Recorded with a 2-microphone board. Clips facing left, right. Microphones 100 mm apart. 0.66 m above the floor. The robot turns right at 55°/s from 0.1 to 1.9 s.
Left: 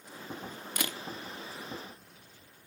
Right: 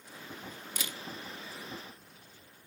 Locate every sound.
0.8 s a camera shutter: 60° left (ahead or behind), 0.7 m